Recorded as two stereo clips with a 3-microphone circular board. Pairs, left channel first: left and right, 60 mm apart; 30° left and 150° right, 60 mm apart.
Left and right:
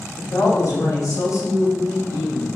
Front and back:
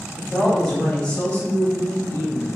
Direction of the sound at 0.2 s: 115° left.